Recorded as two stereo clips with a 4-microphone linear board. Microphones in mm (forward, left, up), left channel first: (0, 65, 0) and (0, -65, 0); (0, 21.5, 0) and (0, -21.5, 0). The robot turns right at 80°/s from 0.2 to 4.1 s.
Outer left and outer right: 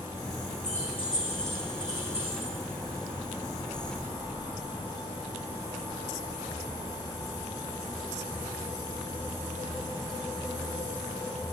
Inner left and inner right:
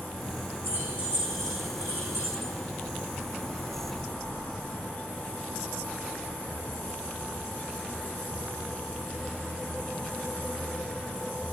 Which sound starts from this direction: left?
Keys jangling, at 0.6 s.